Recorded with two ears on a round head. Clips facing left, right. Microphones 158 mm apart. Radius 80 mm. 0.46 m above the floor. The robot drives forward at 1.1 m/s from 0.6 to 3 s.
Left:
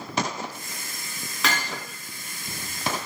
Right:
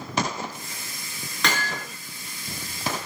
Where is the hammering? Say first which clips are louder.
Right 1 dB; 5° left (ahead or behind), 5 m; by 1.8 s centre (ahead or behind), 5.5 m.